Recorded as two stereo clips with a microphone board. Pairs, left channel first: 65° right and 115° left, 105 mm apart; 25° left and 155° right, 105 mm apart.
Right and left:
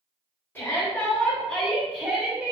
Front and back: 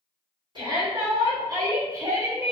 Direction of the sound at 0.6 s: 135° right.